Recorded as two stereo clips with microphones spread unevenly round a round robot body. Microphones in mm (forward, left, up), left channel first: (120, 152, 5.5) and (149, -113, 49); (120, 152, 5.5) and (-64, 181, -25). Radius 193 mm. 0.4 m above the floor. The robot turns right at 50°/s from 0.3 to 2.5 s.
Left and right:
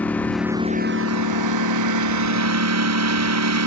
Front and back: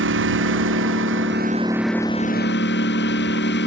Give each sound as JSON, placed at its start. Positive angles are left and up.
{"t": 0.0, "sound": "a lawn mower", "azimuth_deg": -175}